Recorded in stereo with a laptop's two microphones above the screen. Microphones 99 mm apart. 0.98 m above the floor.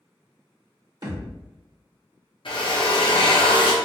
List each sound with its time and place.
1.0 s a thud: 45° right (ahead or behind), 1.1 m
2.5 s a drill: 55° left (ahead or behind), 0.6 m